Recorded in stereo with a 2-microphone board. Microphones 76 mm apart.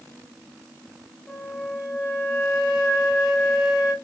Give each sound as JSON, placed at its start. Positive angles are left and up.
{"t": 1.3, "sound": "a flute", "side_deg": 5, "distance_m": 2.0}